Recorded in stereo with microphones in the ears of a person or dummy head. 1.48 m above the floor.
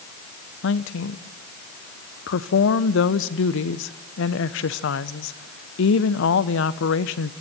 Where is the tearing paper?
No tearing paper in this recording.